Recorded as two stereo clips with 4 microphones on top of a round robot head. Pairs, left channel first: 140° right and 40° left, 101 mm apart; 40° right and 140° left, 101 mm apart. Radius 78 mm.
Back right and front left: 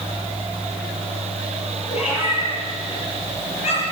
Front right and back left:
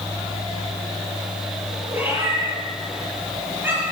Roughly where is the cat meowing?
Behind right.